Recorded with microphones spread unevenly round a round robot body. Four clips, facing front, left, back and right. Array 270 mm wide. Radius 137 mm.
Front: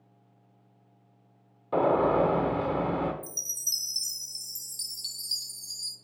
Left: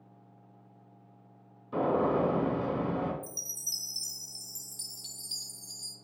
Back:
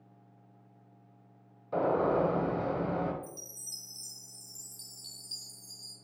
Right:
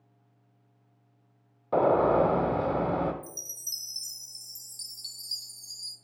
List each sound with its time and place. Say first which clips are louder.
1.7 s a gunshot: right 5 dB, front 4 dB; 65° right, 0.7 m
3.2 s a chime: even, front 1 dB; 10° left, 0.7 m